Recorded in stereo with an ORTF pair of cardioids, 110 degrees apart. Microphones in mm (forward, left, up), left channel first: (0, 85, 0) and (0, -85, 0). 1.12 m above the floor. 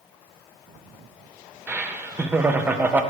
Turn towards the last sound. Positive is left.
turn(degrees=-10)